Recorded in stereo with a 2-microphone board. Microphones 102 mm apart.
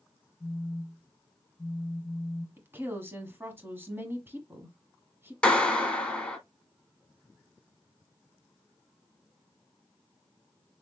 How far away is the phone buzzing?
About 1.3 m.